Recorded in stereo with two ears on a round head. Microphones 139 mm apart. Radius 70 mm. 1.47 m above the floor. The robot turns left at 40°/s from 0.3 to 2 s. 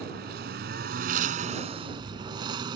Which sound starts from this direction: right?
A lawn mower, at 0.0 s.